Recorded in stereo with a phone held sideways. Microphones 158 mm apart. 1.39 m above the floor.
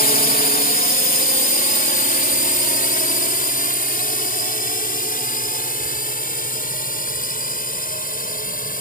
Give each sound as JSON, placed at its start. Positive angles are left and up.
{"t": 0.0, "sound": "a drone", "side_deg": 65}